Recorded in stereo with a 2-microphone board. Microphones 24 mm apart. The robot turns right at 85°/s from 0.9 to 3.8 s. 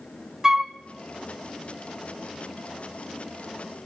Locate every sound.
0.4 s a flute: 20° right (ahead or behind), 1.3 m